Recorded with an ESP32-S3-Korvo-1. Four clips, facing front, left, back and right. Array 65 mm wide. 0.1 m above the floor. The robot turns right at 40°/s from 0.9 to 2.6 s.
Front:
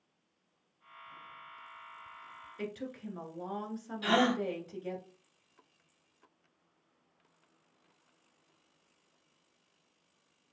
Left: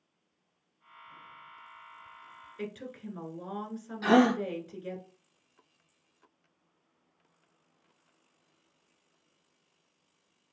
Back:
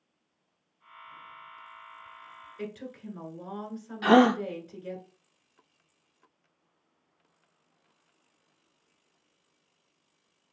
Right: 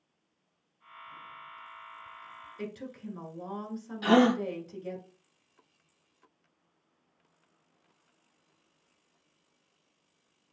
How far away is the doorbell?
I don't hear a doorbell.